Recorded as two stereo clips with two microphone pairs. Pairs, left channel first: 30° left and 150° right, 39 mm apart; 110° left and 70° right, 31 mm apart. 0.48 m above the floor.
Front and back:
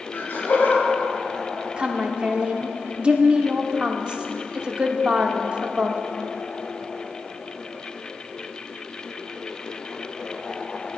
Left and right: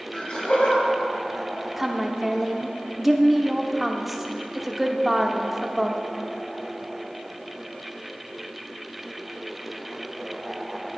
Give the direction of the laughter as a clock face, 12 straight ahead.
10 o'clock.